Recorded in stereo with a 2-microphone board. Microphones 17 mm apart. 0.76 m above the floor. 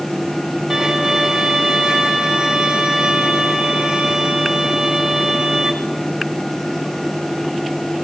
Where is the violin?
35° right (ahead or behind), 1.7 m.